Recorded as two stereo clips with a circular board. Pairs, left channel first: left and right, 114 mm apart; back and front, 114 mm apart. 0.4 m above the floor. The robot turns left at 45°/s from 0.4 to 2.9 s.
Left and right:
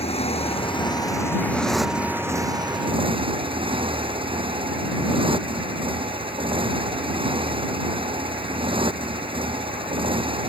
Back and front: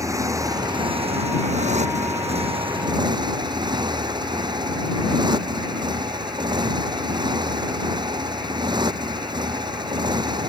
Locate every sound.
0.0 s a motorcycle: 60° left; by 10.5 s 50° right